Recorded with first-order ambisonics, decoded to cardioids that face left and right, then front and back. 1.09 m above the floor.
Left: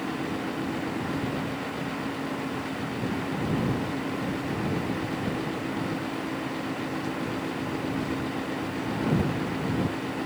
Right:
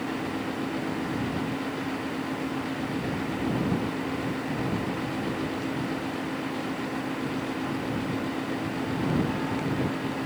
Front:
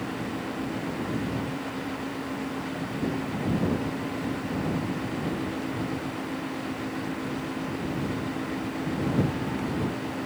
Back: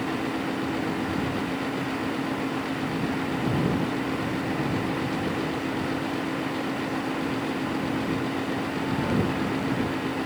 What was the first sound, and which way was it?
Only background noise.